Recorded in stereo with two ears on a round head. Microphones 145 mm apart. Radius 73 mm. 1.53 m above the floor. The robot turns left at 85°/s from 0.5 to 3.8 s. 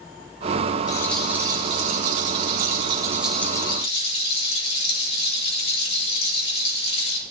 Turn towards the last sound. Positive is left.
turn(degrees=140)